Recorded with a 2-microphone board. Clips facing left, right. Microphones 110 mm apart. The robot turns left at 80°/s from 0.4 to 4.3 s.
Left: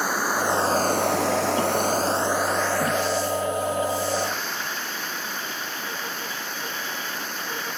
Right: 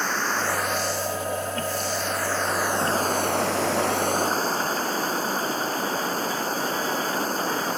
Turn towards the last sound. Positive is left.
turn(degrees=-145)